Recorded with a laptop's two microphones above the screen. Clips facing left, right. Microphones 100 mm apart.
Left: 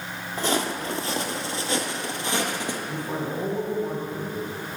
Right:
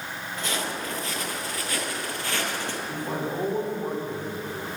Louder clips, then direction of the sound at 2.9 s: Even; 70° right (ahead or behind).